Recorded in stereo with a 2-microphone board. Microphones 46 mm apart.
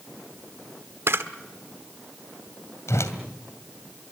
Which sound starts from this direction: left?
A whoosh, at 2.9 s.